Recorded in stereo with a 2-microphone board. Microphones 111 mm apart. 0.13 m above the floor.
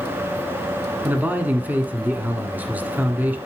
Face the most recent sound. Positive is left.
turn(degrees=-15)  # may be behind; listen again after turning